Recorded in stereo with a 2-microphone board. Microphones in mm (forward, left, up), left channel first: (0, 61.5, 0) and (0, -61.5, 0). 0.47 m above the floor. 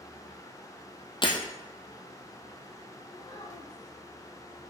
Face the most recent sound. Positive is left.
turn(degrees=30)  # may be behind; listen again after turning